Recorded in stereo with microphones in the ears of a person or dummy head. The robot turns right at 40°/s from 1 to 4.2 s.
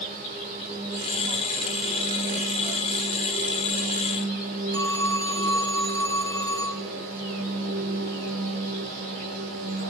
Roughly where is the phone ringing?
Centre.